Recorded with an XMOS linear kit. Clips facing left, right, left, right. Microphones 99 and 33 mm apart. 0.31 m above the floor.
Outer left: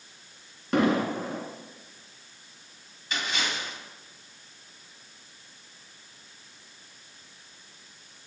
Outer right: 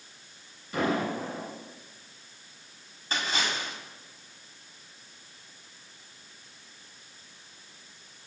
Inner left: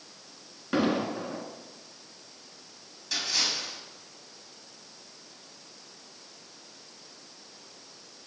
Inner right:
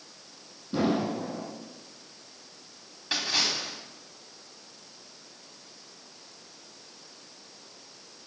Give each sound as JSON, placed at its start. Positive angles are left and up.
{"t": 0.7, "sound": "an explosion", "side_deg": 75, "distance_m": 1.9}
{"t": 3.1, "sound": "a splash", "side_deg": -40, "distance_m": 2.5}